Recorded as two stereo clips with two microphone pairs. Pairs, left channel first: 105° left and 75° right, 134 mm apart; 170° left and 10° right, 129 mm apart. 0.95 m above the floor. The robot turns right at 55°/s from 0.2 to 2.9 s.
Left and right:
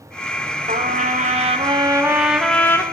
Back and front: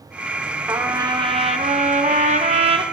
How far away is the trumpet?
About 0.6 m.